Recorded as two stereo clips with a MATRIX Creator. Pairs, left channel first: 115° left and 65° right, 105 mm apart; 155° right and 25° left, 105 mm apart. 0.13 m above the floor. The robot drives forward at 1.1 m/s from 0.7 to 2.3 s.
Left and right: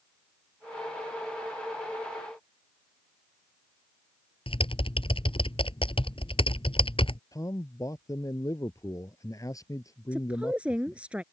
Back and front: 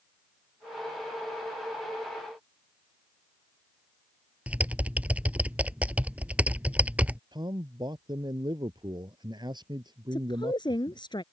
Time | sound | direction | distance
4.5 | typing on a keyboard | 95° left | ?
7.3 | a man speaking | 60° left | ?
10.1 | a woman speaking | 140° right | ?